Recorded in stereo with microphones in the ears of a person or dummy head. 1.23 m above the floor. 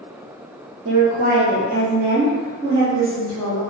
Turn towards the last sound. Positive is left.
turn(degrees=-10)  # may be behind; listen again after turning